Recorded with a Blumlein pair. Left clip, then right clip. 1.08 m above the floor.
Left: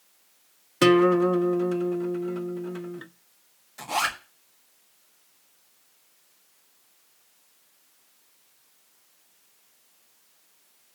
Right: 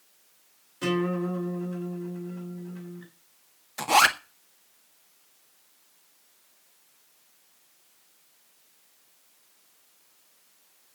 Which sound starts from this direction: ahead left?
A guitar, at 0.8 s.